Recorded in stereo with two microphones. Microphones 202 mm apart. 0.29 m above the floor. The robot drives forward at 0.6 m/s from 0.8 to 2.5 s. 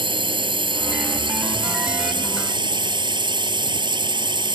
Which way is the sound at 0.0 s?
25° right (ahead or behind).